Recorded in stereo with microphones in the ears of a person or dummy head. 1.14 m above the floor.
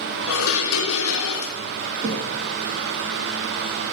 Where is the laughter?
No laughter in this recording.